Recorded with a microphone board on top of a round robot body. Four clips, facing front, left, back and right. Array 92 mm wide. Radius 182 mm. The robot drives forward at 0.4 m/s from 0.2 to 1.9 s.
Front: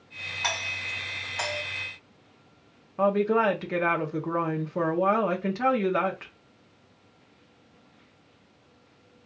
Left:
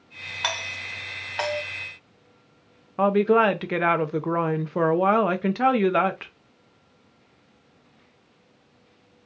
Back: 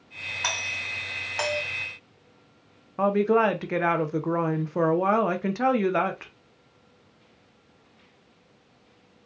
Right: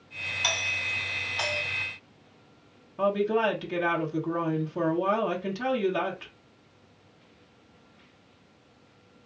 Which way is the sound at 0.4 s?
100° left.